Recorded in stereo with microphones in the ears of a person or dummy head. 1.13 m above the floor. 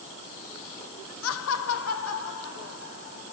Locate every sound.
1.2 s laughter: 80° left, 0.6 m; by 3.3 s 85° left, 3 m